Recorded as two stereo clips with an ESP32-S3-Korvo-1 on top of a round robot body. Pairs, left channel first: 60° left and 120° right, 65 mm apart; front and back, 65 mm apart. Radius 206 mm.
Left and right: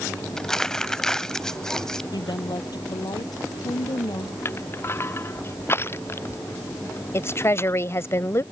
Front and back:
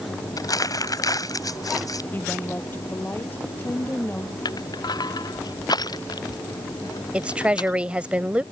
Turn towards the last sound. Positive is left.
turn(degrees=110)